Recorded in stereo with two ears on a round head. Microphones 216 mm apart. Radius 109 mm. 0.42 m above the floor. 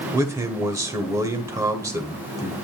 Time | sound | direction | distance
0.1 | a man speaking | 15° right (ahead or behind) | 1.4 m